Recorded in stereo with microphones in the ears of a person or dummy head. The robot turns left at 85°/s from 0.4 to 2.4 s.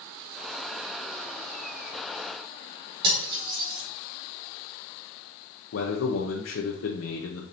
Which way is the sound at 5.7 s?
60° left (ahead or behind).